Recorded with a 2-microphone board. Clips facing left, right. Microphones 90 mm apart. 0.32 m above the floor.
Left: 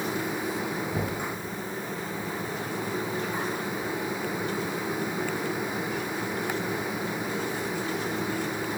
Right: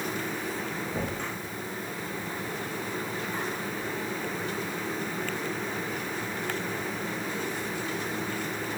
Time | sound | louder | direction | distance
0.9 | knocking | left 2 dB | 70° left (ahead or behind) | 4 m